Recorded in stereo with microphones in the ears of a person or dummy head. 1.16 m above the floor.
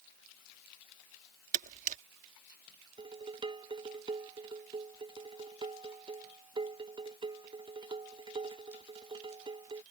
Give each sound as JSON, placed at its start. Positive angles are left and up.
{"t": 1.5, "sound": "a camera shutter", "side_deg": -40}
{"t": 3.0, "sound": "dishes clattering", "side_deg": -25}